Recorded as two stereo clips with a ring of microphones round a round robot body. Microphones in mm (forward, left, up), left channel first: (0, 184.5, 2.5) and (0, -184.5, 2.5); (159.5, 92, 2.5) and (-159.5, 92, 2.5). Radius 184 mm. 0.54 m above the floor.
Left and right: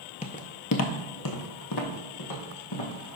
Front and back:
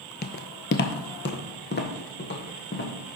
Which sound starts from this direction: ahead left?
Footsteps, at 0.2 s.